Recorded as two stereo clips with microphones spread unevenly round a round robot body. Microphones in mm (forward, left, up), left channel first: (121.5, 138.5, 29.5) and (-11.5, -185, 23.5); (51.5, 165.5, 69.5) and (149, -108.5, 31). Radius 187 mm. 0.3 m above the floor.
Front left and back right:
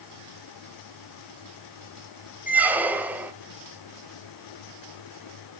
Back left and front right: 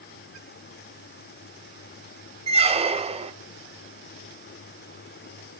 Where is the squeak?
30° right, 0.6 m.